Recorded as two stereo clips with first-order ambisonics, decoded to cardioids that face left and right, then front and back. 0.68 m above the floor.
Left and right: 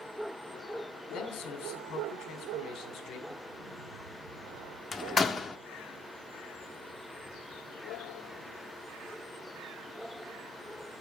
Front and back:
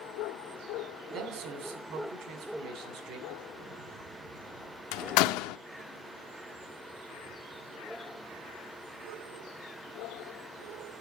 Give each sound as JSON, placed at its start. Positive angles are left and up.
{"t": 1.1, "sound": "a man speaking", "azimuth_deg": 140, "distance_m": 2.5}
{"t": 3.4, "sound": "an explosion", "azimuth_deg": -130, "distance_m": 2.0}
{"t": 4.9, "sound": "a door slam", "azimuth_deg": 15, "distance_m": 0.7}